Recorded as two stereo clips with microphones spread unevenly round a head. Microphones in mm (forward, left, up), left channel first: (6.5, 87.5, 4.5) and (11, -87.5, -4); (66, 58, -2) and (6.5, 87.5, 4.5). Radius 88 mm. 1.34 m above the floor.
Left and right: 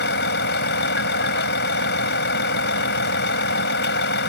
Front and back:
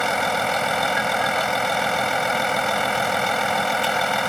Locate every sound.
0.0 s a vehicle: 65° left